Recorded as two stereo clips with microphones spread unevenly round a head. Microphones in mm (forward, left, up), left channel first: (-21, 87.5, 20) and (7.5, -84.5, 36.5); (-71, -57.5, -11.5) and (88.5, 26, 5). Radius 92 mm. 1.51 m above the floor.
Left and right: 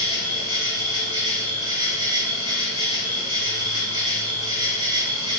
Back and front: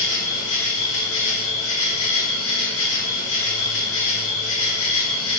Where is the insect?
150° right, 2 m.